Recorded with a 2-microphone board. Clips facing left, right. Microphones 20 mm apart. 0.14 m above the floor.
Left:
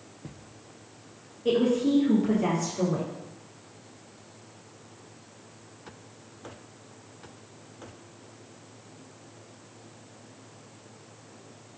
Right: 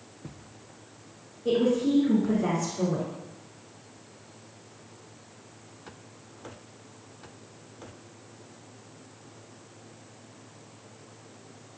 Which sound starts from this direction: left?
A woman speaking, at 1.4 s.